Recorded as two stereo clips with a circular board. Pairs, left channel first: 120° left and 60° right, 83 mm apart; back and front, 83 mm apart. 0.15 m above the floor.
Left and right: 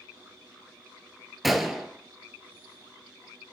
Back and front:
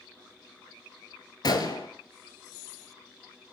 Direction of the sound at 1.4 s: 145° right.